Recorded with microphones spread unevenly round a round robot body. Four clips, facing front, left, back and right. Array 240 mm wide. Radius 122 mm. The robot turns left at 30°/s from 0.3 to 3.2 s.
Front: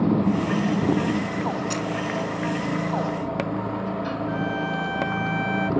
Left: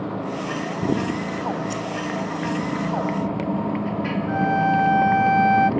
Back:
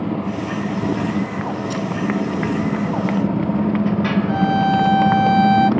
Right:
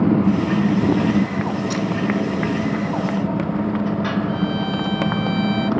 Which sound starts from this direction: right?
A motorcycle, at 0.0 s.